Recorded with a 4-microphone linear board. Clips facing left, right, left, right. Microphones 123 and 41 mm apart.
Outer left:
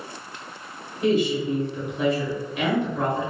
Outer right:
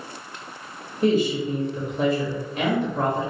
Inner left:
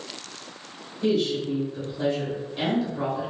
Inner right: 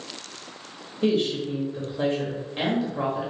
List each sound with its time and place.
1.0 s a woman speaking: 40° right (ahead or behind), 1.1 m